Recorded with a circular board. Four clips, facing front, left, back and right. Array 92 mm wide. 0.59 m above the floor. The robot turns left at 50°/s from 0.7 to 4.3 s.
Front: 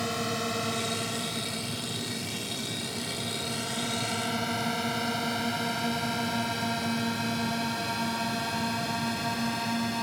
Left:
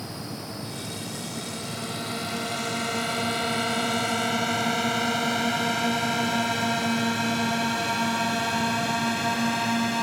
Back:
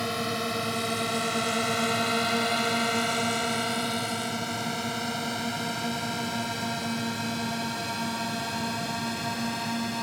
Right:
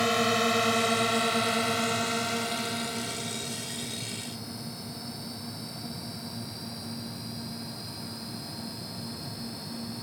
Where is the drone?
95° right; by 10.0 s 90° left.